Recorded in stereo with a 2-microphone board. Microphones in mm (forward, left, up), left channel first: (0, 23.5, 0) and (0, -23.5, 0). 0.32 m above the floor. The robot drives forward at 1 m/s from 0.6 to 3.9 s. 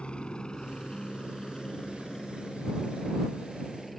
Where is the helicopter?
20° left (ahead or behind); by 4.0 s 5° left (ahead or behind).